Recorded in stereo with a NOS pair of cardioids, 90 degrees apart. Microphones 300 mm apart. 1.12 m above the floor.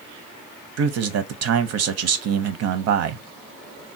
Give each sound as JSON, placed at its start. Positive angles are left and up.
{"t": 0.8, "sound": "a man speaking", "azimuth_deg": -60, "distance_m": 0.7}